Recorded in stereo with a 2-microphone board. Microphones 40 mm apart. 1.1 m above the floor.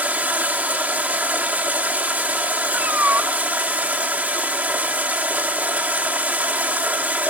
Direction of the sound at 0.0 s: 40° right (ahead or behind).